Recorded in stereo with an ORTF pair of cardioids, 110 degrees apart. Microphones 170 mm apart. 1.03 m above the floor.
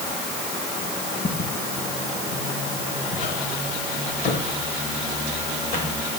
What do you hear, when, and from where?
1.2 s footsteps: 40° left, 4.5 m; by 6.0 s 65° left, 9.5 m